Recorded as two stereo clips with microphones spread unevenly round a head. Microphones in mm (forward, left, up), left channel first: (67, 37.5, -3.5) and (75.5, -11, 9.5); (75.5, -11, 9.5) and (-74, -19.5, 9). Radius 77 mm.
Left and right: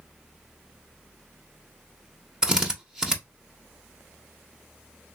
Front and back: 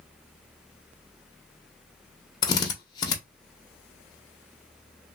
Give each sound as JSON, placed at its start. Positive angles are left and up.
{"t": 2.4, "sound": "a drill", "azimuth_deg": -40, "distance_m": 0.8}